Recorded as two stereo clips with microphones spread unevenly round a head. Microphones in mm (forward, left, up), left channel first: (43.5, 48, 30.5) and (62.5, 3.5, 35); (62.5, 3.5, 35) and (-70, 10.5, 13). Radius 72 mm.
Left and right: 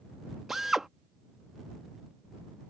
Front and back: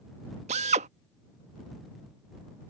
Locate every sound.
0.5 s a drill: 145° right